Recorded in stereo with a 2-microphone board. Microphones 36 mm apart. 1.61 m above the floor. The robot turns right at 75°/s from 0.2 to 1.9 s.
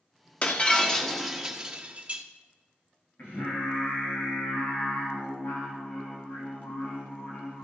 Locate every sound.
0.4 s breaking glass: 120° left, 1.2 m; by 2.2 s 130° right, 1.2 m
3.2 s singing: 60° left (ahead or behind), 4 m